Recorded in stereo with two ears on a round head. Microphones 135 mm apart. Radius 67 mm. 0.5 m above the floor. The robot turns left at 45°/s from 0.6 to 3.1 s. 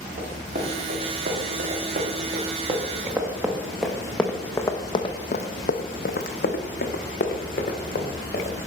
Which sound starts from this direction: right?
Running footsteps, at 0.2 s.